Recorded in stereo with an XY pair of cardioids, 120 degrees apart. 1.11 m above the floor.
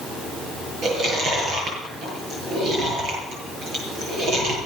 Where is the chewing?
60° right, 8 m.